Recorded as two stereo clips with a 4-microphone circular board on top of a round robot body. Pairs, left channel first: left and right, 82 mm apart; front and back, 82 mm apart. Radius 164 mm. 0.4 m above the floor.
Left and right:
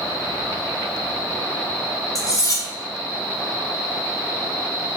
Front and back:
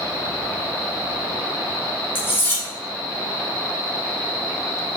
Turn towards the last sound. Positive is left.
turn(degrees=55)